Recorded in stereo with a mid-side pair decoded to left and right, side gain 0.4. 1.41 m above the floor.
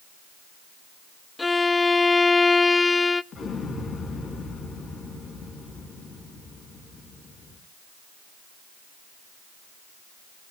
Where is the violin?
25° left, 0.7 m.